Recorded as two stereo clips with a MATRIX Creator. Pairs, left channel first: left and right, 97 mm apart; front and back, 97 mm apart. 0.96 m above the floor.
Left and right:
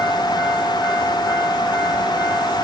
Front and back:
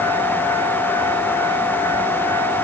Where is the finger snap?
I don't hear a finger snap.